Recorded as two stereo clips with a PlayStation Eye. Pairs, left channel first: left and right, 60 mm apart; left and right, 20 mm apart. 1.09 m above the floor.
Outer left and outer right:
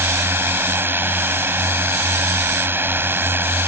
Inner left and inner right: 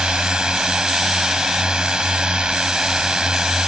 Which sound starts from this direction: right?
A drone, at 0.0 s.